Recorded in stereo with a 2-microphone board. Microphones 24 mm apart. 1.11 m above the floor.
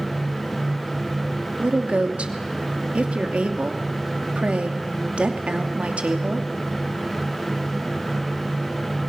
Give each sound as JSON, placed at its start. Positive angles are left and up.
{"t": 1.6, "sound": "a woman speaking", "side_deg": -65, "distance_m": 2.5}